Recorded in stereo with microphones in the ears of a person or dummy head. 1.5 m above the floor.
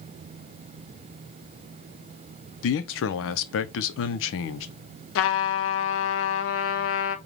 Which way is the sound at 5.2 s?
70° left (ahead or behind).